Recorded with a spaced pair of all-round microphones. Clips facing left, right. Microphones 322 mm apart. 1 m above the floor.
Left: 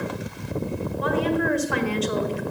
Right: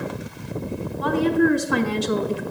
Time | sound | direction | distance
1.0 | a woman speaking | 50° right (ahead or behind) | 2.5 m